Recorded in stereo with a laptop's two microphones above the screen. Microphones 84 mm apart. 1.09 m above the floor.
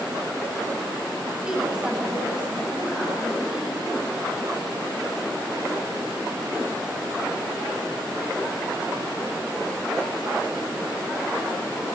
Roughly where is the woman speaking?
Centre.